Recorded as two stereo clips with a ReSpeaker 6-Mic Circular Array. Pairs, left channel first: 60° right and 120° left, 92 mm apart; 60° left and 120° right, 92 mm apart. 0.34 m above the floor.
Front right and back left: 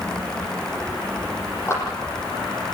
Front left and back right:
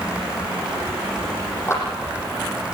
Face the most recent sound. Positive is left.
turn(degrees=0)